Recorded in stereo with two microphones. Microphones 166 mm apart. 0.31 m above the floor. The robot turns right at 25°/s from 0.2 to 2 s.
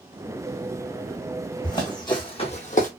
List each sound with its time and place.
1.6 s running footsteps: 25° left (ahead or behind), 1.2 m; by 2.9 s 55° left (ahead or behind), 0.8 m